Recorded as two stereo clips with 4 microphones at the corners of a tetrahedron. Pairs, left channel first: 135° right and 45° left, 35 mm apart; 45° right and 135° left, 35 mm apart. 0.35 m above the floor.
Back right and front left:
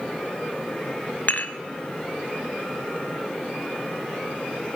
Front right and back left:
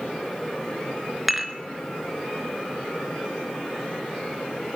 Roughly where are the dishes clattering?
Behind right.